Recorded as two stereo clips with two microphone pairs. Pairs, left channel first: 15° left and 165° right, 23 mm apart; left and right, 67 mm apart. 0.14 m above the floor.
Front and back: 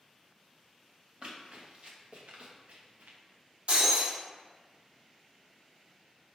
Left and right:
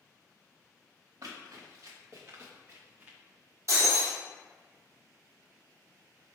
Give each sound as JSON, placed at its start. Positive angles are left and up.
{"t": 1.2, "sound": "running footsteps", "azimuth_deg": -115, "distance_m": 1.9}
{"t": 3.7, "sound": "breaking glass", "azimuth_deg": -130, "distance_m": 1.9}